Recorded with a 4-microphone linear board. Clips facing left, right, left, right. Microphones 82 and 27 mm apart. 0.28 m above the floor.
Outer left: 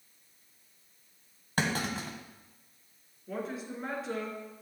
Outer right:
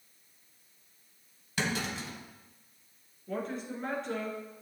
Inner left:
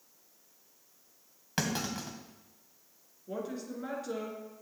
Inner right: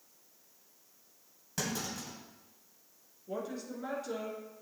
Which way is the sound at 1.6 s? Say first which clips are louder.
Outer left 2 dB, inner left 4 dB; 50° left (ahead or behind).